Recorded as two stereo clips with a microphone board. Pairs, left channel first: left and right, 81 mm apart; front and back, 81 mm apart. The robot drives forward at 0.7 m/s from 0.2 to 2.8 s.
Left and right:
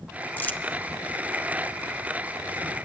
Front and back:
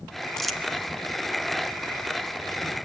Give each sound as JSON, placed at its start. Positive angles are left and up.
{"t": 0.4, "sound": "crumpling", "azimuth_deg": 75, "distance_m": 1.0}